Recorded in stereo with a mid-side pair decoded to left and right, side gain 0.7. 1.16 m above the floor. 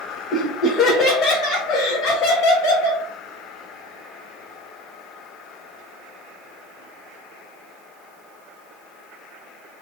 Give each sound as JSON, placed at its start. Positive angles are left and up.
{"t": 0.3, "sound": "laughter", "azimuth_deg": 30, "distance_m": 0.9}